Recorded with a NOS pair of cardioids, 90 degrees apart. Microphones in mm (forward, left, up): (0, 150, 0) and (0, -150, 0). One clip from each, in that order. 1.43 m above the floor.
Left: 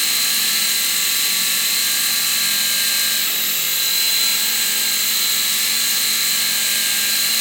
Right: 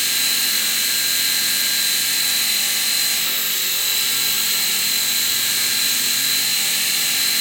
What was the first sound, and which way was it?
A machine running, 20° left.